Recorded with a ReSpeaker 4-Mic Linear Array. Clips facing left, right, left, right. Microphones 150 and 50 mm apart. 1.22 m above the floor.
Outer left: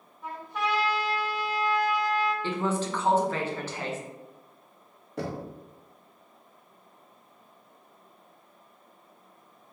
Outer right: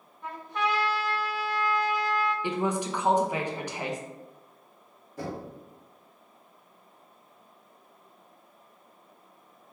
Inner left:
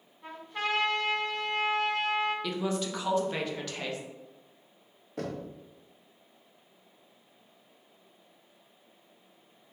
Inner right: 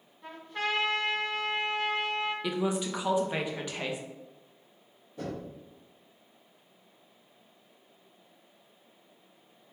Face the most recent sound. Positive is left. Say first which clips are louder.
# outer left 2 dB, inner left 1 dB
turn(degrees=70)  # may be behind; listen again after turning